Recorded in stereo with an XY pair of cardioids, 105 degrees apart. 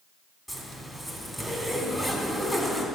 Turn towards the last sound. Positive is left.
turn(degrees=5)